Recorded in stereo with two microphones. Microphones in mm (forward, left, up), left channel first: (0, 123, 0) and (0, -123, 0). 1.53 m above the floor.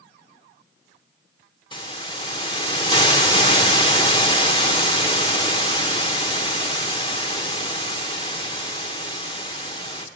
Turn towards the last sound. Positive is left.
turn(degrees=20)  # may be behind; listen again after turning